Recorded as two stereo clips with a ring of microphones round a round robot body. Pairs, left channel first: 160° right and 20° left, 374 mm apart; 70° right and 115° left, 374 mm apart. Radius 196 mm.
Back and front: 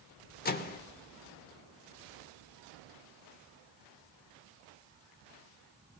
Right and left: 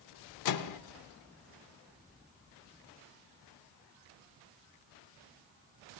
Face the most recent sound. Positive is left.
turn(degrees=-95)